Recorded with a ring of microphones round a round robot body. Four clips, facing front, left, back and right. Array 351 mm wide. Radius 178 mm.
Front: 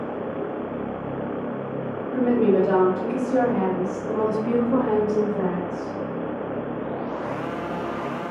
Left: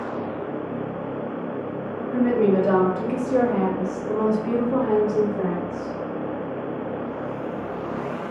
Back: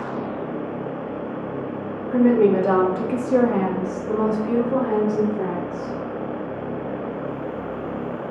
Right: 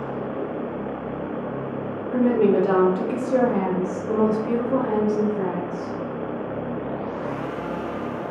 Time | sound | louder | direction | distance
2.1 | a woman speaking | right 1 dB, back 3 dB | 165° right | 1.3 m